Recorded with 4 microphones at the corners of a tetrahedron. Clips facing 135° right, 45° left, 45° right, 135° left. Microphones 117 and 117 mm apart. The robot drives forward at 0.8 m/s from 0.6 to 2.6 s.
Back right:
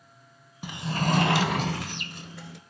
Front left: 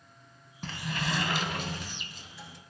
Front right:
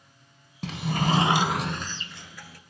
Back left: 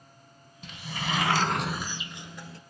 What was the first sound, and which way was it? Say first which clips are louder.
A sliding door: back right 6 dB, front right 9 dB; 55° right.